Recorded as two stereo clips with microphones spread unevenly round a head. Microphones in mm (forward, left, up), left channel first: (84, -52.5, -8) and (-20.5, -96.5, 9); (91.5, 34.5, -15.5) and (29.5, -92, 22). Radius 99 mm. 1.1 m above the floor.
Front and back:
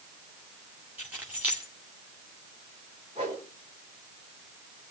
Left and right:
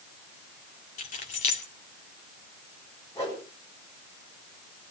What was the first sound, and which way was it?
Keys jangling, 120° left.